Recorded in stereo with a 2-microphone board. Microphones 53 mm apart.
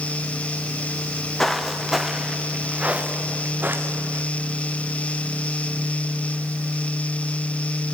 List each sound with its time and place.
1.0 s footsteps: 10° left (ahead or behind), 2.5 m; by 4.2 s 45° right (ahead or behind), 3 m